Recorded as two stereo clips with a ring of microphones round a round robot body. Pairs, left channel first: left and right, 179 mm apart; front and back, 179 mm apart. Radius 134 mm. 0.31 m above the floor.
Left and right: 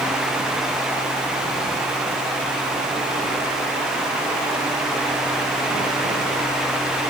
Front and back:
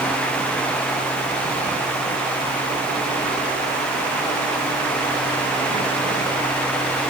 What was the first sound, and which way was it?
Only background noise.